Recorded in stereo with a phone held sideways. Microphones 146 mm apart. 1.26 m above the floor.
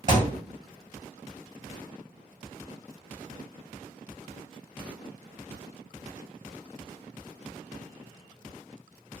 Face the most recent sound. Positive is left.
turn(degrees=-50)  # may be behind; listen again after turning